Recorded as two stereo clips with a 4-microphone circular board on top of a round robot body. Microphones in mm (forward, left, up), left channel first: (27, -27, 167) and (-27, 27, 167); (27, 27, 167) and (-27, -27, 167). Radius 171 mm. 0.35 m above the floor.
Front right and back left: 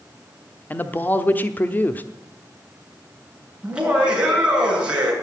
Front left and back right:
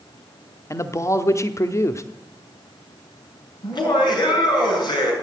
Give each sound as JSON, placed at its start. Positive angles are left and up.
{"t": 0.7, "sound": "a man speaking", "azimuth_deg": 10, "distance_m": 1.1}
{"t": 3.6, "sound": "laughter", "azimuth_deg": 60, "distance_m": 7.0}